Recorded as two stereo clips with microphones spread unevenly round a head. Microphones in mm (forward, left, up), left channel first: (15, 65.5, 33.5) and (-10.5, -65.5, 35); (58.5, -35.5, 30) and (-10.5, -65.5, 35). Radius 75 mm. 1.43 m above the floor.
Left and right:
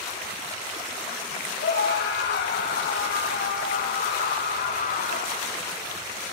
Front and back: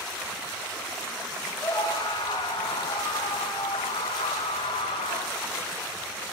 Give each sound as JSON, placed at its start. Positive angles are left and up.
{"t": 1.6, "sound": "a scream", "azimuth_deg": 90, "distance_m": 8.0}